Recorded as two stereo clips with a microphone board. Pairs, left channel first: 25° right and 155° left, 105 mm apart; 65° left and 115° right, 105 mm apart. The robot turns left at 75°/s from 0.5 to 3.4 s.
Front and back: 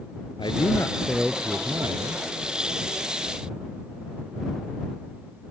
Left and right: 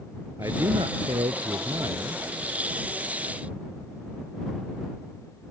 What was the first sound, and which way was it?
A man speaking, 60° right.